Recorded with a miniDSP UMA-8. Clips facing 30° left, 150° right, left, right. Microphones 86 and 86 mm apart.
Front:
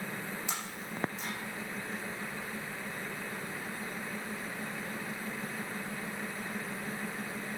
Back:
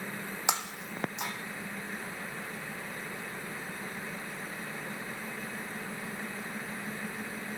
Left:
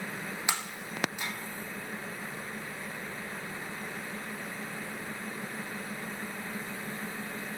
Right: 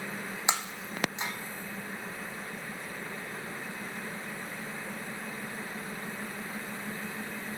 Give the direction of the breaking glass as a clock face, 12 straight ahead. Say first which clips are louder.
Back 5 dB, right 4 dB; 5 o'clock.